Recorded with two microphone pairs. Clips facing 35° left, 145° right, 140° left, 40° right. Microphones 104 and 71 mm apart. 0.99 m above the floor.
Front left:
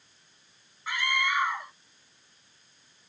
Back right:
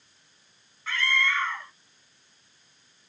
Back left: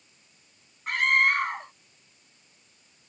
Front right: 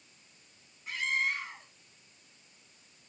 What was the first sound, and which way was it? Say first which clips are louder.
A scream: back right 1 dB, back left 10 dB; 110° left.